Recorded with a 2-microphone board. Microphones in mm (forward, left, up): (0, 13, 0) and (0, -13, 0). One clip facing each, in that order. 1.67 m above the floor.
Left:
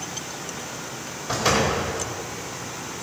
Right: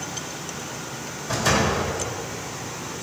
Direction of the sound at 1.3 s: 35° left (ahead or behind).